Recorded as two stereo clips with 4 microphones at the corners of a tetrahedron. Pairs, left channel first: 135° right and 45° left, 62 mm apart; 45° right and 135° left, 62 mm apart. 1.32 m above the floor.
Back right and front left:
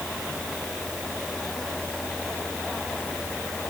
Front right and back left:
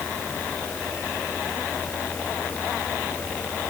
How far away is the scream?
I don't hear a scream.